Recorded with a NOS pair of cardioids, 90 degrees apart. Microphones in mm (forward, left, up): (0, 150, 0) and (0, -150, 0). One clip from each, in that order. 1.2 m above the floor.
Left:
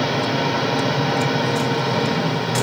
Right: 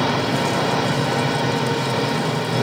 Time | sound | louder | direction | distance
0.0 | an engine running | even | straight ahead | 3 m